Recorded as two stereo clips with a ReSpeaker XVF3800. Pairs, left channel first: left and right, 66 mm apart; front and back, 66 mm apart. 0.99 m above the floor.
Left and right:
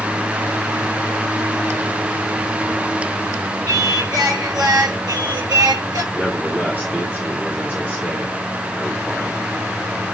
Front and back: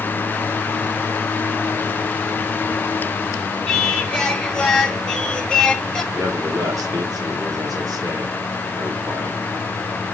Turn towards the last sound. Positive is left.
turn(degrees=-155)